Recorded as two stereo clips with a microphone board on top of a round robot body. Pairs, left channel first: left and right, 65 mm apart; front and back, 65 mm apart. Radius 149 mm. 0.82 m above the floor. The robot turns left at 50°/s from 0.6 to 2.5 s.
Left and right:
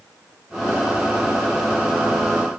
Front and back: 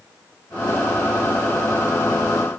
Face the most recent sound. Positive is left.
No sound to turn to.